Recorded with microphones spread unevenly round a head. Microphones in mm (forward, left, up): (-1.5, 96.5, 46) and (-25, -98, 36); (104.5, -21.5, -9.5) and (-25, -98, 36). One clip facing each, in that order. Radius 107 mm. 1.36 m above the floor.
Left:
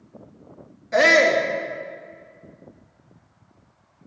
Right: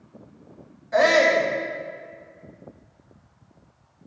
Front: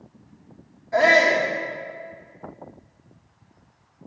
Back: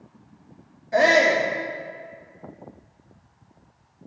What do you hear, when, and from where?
0.9 s a shout: 140° left, 2 m